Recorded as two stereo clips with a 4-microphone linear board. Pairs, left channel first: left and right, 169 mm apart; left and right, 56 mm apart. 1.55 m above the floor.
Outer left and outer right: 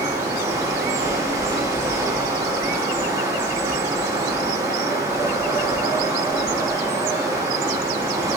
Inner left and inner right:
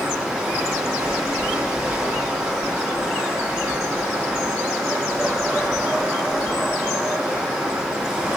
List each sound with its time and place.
0.0 s running water: 15° right (ahead or behind), 0.7 m